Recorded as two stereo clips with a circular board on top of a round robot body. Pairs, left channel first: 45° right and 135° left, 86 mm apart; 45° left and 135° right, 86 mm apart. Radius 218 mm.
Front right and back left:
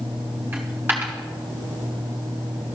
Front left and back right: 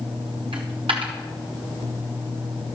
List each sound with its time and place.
0.5 s a dropped coin: 155° right, 1.1 m